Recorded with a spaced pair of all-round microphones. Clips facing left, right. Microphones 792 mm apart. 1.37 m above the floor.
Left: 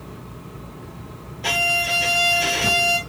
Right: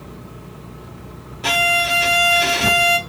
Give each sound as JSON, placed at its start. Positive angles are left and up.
{"t": 1.4, "sound": "a violin", "side_deg": -45, "distance_m": 0.6}